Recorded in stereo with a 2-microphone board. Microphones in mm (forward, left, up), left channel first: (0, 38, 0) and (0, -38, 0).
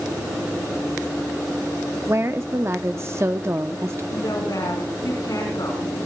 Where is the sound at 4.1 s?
55° left (ahead or behind), 5.5 m.